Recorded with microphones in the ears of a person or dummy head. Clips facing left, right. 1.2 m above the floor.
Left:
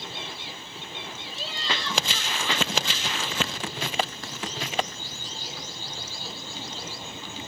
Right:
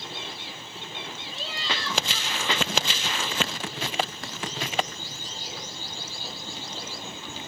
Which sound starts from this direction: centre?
Laughter, at 1.3 s.